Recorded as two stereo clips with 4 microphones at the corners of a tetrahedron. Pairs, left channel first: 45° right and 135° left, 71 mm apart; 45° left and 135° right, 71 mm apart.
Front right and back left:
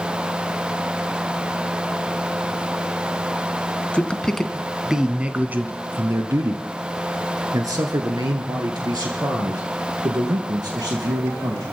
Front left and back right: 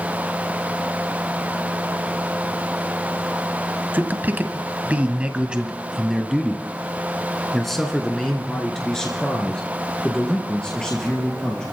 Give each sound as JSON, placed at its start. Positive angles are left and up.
{"t": 3.9, "sound": "a man speaking", "azimuth_deg": -100, "distance_m": 1.1}